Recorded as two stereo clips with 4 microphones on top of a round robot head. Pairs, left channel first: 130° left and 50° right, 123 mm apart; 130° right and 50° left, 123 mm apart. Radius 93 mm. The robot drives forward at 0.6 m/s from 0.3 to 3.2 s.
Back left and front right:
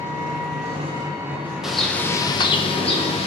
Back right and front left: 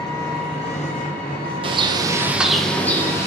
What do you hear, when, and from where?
0.0 s an engine running: 70° right, 0.7 m; by 3.3 s 155° right, 1.6 m
1.6 s a bird: 35° left, 0.6 m; by 3.3 s 160° left, 0.8 m